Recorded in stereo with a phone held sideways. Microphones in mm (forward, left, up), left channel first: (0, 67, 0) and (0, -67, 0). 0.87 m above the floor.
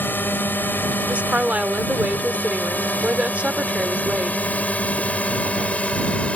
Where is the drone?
15° left (ahead or behind); by 6.4 s 10° left (ahead or behind).